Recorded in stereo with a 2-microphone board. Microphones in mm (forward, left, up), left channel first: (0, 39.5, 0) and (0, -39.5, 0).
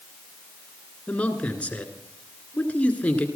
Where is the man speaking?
15° left (ahead or behind), 1.9 m.